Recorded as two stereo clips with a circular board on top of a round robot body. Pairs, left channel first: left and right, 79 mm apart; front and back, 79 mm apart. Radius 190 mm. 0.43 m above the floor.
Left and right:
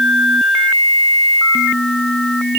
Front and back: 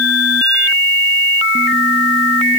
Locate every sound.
Only background noise.